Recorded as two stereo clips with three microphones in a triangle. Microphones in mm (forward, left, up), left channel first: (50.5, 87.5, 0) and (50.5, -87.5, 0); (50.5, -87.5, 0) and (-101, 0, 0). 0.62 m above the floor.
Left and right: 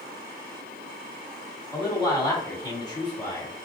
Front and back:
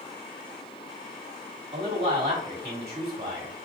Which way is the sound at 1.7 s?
155° left.